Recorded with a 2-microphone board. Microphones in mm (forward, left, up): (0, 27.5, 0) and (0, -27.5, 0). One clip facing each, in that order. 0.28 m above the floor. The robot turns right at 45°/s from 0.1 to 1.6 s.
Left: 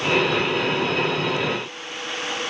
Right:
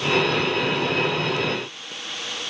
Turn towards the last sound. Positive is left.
No sound to turn to.